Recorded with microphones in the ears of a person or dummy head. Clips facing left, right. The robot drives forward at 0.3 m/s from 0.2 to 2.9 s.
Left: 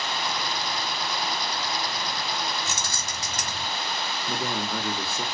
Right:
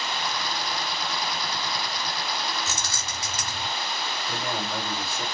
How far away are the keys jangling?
About 1.9 m.